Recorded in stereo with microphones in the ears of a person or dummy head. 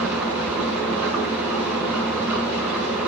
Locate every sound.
0.0 s an engine running: 5° right (ahead or behind), 6 m